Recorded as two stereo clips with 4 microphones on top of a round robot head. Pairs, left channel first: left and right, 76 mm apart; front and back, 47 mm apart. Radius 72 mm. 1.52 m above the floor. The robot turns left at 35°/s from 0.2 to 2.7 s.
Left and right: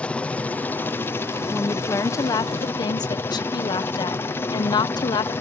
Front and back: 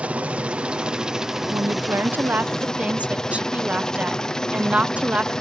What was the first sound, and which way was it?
A helicopter, 150° left.